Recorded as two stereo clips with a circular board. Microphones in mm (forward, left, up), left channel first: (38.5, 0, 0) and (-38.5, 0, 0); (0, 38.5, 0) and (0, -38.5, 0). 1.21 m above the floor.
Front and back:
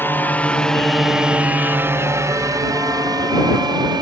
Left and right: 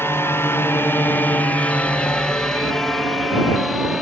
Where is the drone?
50° left; by 4.0 s 175° right.